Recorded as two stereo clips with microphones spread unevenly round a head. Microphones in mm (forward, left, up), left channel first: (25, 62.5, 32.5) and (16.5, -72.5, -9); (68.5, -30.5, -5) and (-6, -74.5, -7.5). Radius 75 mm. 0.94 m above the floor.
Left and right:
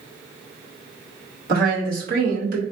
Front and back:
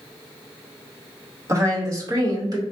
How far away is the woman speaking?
About 2.5 m.